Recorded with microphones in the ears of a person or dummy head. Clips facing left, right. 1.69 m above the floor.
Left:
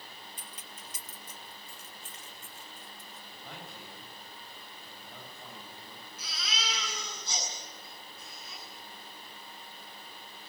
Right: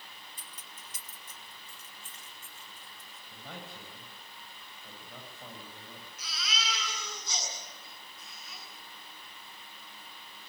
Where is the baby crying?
30° left (ahead or behind), 9 m.